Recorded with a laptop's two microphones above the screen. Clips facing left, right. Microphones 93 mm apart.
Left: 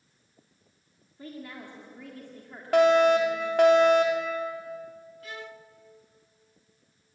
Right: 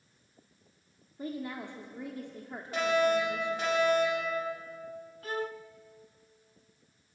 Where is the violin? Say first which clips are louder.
Right 8 dB; 40° right (ahead or behind), 0.6 m.